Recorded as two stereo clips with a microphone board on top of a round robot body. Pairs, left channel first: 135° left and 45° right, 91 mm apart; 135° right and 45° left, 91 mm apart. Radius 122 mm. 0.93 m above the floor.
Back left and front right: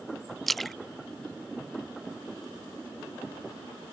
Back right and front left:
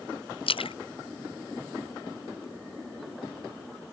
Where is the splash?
135° right.